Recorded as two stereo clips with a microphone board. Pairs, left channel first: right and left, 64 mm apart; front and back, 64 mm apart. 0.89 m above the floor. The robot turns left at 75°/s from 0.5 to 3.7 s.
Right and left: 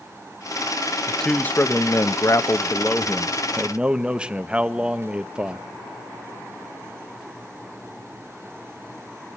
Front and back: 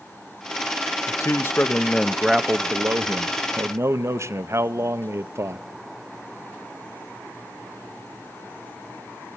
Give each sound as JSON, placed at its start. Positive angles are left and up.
{"t": 1.1, "sound": "a man speaking", "azimuth_deg": 0, "distance_m": 0.7}